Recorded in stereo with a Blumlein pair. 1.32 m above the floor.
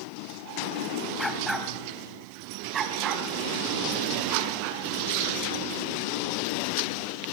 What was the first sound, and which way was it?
A dog barking, 10° left.